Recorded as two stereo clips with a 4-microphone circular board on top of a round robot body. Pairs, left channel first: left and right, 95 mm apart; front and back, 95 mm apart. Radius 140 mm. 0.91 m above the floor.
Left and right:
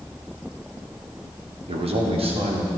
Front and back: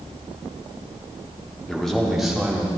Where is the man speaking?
85° right, 2.5 m; by 2.7 s 100° right, 3 m.